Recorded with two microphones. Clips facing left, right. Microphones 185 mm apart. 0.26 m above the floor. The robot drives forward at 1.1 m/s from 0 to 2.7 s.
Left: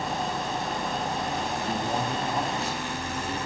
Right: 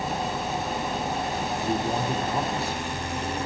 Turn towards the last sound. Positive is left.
turn(degrees=-35)  # may be behind; listen again after turning